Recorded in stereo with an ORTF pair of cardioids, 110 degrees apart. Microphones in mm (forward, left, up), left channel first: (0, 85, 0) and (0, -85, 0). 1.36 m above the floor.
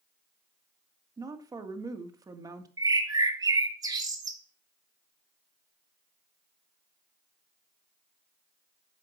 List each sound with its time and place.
1.2 s a woman speaking: 20° right, 1.9 m
2.8 s a bird: 20° right, 1.8 m